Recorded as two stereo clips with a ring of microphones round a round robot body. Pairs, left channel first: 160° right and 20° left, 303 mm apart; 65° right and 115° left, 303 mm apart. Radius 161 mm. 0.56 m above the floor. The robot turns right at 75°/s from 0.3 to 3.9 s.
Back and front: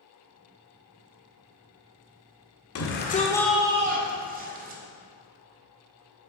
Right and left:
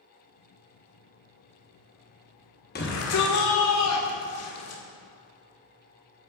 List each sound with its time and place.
2.8 s a shout: 125° right, 1.6 m; by 4.8 s 35° right, 1.6 m